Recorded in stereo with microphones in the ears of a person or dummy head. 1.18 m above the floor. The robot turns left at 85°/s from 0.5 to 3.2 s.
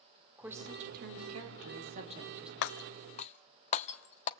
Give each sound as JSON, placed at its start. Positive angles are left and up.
{"t": 0.4, "sound": "a woman speaking", "azimuth_deg": -10, "distance_m": 3.0}
{"t": 2.6, "sound": "breaking glass", "side_deg": 60, "distance_m": 1.0}